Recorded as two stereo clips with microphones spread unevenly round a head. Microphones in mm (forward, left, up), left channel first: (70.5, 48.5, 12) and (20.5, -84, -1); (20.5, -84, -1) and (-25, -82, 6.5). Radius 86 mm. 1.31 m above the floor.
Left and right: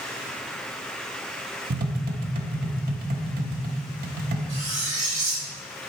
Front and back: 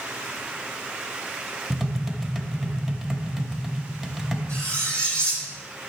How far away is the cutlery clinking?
About 3.5 m.